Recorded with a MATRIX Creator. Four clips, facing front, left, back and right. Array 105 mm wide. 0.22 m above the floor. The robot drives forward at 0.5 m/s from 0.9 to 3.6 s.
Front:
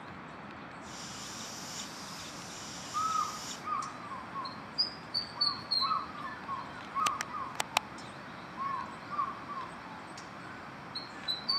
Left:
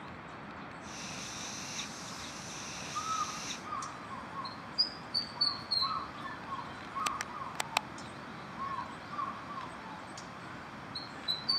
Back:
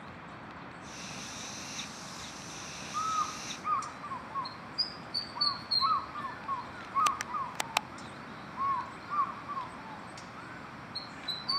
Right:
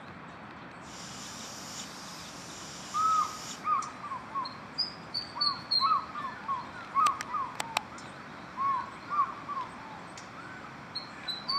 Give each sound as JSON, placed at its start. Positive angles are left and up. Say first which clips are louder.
{"t": 2.9, "sound": "a bird", "louder": "right 9 dB, even", "azimuth_deg": -85, "distance_m": 0.7}